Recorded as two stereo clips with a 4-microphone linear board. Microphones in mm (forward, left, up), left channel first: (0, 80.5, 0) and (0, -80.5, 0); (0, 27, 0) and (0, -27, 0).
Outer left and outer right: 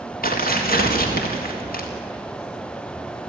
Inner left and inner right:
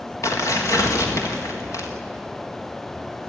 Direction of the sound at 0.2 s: 65° left (ahead or behind).